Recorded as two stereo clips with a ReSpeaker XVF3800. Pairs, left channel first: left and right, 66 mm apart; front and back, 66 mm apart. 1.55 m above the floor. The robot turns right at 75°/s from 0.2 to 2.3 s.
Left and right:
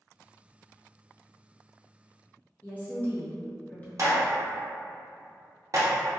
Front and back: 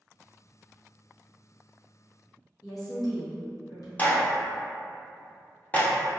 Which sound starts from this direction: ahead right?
A clap, at 4.0 s.